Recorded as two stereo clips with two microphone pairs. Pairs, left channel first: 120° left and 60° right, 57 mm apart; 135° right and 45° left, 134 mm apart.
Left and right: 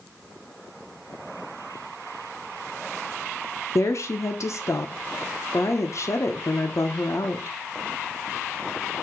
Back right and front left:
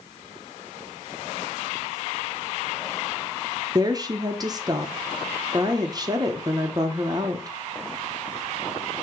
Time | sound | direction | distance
3.8 | a woman speaking | 105° left | 0.8 m